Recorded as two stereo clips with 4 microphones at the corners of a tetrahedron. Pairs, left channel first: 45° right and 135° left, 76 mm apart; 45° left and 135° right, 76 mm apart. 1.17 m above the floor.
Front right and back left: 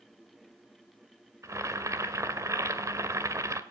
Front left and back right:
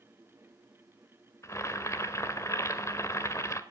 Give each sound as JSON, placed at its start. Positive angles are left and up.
{"t": 1.4, "sound": "boiling", "azimuth_deg": 90, "distance_m": 1.8}